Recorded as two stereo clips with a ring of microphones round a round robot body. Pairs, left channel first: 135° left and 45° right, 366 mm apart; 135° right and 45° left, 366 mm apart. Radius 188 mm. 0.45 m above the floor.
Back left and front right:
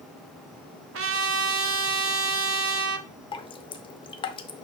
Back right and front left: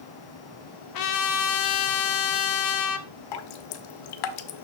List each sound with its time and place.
0.9 s a trumpet: 100° right, 0.8 m
3.3 s dripping: 150° right, 0.7 m